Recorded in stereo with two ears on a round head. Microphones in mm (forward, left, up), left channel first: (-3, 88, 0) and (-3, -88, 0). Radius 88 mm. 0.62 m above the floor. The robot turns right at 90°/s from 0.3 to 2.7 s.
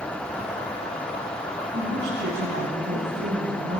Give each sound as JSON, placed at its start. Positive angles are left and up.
{"t": 1.7, "sound": "a woman speaking", "azimuth_deg": -145, "distance_m": 4.5}